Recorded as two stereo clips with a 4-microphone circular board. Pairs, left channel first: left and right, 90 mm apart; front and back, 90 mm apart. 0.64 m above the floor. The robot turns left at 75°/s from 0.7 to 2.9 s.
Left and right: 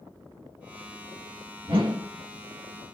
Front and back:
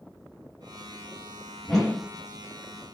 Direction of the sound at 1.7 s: 80° right.